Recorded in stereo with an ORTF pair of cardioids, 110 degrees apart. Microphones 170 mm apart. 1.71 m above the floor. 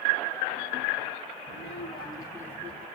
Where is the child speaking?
45° left, 1.5 m; by 2.9 s 5° left, 1.7 m.